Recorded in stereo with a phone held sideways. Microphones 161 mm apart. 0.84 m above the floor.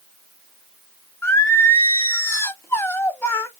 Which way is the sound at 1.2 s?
15° left (ahead or behind).